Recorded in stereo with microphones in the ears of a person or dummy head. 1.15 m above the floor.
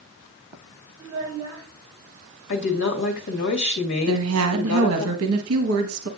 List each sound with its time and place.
1.0 s a child speaking: 20° right (ahead or behind), 5.5 m
2.5 s a woman speaking: 60° left (ahead or behind), 1.8 m
4.1 s a woman speaking: 80° right, 1.1 m